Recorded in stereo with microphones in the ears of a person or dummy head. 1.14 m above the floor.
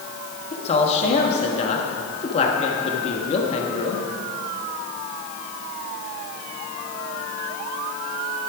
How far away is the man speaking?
About 1.4 m.